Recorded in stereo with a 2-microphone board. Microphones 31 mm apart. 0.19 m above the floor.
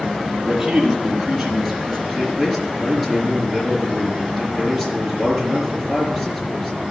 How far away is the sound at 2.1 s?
About 4 m.